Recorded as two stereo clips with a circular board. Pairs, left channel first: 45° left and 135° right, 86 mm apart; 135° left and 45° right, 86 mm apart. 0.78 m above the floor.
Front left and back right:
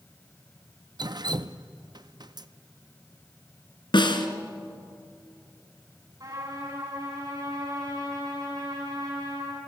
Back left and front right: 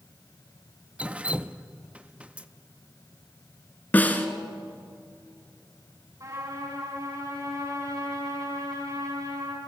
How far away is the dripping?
About 0.6 m.